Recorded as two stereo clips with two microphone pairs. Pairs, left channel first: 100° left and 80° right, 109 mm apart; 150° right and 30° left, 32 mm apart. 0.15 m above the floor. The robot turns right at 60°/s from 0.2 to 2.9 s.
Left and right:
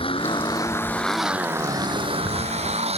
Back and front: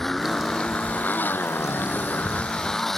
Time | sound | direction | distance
0.0 | a motorcycle | 130° left | ?